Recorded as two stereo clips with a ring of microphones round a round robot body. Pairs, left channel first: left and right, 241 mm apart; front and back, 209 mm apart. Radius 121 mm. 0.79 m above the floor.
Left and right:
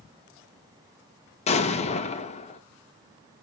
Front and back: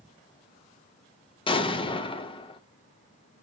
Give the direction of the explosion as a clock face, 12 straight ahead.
10 o'clock.